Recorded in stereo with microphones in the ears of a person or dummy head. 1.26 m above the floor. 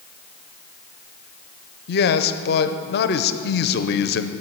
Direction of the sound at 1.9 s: 45° left (ahead or behind).